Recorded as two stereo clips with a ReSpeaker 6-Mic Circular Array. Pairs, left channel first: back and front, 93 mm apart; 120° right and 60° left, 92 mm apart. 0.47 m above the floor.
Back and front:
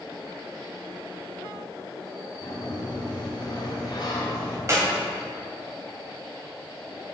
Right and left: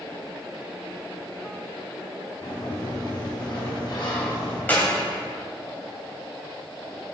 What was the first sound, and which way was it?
A sliding door, 150° right.